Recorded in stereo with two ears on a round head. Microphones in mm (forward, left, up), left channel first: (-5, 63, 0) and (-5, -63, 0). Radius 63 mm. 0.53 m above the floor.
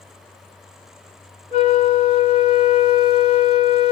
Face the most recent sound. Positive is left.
turn(degrees=45)  # may be behind; listen again after turning